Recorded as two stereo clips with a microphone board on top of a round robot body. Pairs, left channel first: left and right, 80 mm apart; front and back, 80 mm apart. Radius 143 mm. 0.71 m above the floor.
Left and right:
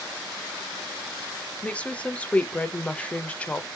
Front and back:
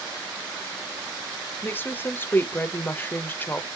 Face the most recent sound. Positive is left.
turn(degrees=30)